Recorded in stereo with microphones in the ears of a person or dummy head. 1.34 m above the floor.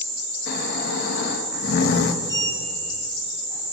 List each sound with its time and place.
0.5 s snoring: 60° left (ahead or behind), 1.4 m
2.2 s a sliding door: 20° left (ahead or behind), 5 m